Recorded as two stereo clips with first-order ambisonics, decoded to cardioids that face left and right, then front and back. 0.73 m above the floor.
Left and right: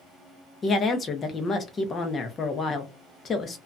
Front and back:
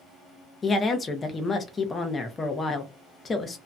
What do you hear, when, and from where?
0.6 s a woman speaking: 55° left, 0.6 m